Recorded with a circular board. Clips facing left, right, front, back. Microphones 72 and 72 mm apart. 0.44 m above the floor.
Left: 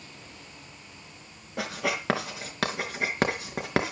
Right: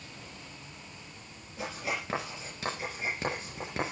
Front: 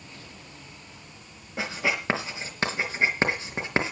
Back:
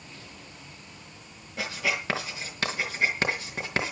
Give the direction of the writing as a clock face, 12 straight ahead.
10 o'clock.